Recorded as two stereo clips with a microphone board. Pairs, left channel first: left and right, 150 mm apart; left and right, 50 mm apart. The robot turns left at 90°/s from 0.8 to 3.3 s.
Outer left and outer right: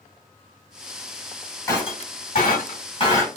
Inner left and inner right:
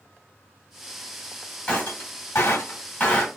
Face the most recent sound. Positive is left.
turn(degrees=15)  # may be behind; listen again after turning